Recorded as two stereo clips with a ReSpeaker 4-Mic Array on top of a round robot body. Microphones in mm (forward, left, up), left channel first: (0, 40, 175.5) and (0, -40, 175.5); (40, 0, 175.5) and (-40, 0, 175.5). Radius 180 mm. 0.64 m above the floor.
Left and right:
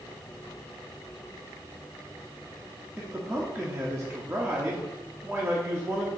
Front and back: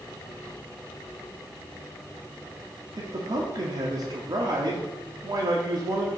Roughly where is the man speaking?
Behind.